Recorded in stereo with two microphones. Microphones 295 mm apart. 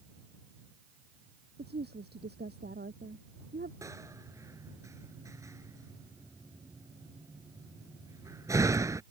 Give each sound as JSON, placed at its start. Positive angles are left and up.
{"t": 1.6, "sound": "a woman speaking", "side_deg": -35}
{"t": 3.8, "sound": "a door slam", "side_deg": -10}